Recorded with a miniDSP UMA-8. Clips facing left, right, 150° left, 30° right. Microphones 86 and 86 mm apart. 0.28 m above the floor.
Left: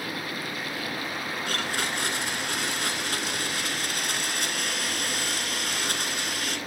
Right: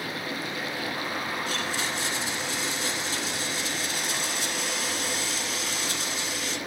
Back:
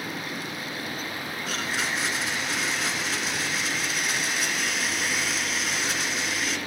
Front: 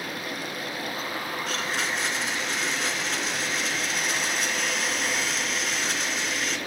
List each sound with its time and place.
1.5 s a blender: 65° left, 3 m